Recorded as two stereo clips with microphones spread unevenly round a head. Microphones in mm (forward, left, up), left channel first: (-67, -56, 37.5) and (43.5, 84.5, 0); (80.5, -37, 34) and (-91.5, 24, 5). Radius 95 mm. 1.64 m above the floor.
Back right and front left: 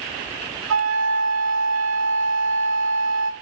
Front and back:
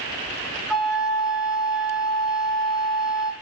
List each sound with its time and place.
0.7 s a flute: 70° left, 0.5 m